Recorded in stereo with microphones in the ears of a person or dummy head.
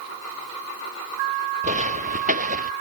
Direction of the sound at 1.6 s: 40° right (ahead or behind).